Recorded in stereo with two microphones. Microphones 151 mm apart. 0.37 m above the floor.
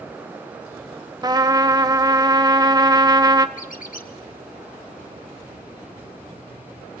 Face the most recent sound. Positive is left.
turn(degrees=65)  # may be behind; listen again after turning